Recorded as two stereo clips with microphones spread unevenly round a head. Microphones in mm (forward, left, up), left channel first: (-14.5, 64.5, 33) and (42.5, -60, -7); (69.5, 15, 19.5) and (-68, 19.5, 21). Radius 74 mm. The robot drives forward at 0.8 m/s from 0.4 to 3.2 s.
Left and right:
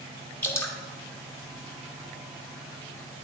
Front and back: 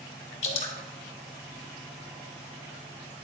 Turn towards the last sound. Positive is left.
turn(degrees=130)